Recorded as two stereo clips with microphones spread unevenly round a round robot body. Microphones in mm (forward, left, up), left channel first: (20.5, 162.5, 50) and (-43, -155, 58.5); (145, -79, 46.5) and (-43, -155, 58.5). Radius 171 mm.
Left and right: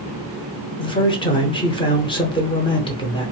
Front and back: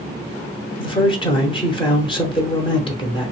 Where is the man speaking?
25° left, 0.9 m.